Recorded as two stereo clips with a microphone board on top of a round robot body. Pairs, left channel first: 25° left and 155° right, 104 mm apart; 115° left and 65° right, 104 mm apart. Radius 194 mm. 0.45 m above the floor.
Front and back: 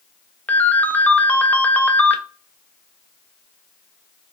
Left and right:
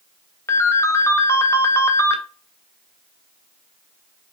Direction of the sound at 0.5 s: 80° left.